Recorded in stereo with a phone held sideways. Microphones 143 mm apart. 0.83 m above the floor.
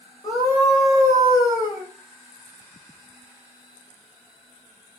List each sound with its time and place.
0.2 s a scream: 25° left (ahead or behind), 3.5 m